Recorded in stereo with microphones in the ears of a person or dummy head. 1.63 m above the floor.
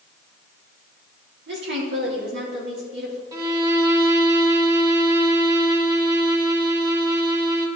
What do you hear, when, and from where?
1.5 s a woman speaking: 60° right (ahead or behind), 2.5 m
3.3 s a violin: 25° right (ahead or behind), 1.9 m